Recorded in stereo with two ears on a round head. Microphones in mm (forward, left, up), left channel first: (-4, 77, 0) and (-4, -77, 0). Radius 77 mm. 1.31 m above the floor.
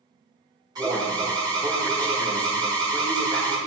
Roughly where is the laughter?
No laughter in this recording.